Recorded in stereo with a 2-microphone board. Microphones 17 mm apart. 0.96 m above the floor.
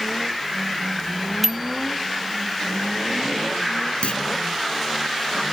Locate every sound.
1.4 s a bicycle bell: 10° right (ahead or behind)
4.0 s a clunk: 85° left